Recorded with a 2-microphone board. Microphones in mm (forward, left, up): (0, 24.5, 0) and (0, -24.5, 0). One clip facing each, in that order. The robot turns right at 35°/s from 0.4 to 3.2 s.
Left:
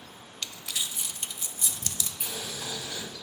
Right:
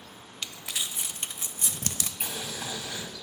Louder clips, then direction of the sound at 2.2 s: Right 1 dB; 45° right (ahead or behind).